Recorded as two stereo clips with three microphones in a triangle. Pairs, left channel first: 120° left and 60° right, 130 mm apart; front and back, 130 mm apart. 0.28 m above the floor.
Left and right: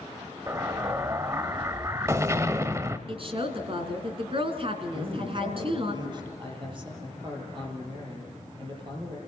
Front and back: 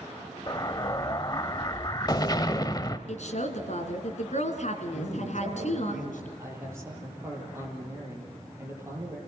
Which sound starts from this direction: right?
A man speaking, at 6.4 s.